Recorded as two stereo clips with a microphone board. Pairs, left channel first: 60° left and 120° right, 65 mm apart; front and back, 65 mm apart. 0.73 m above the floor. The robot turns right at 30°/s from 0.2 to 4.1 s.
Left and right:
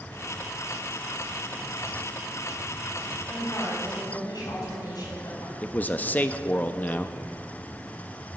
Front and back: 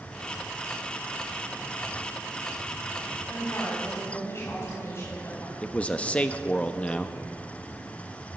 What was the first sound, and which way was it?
A woman speaking, 25° left.